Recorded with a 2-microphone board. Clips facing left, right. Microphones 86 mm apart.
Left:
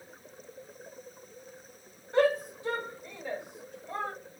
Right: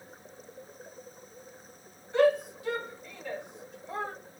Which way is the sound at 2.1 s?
45° left (ahead or behind).